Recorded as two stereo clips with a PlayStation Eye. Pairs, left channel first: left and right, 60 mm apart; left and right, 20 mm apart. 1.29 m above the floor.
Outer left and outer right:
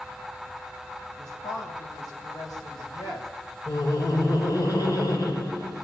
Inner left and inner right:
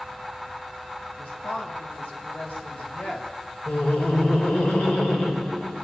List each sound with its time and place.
1.2 s a woman speaking: 85° left, 8 m; by 3.3 s 80° left, 7 m
3.7 s laughter: 75° left (ahead or behind), 5 m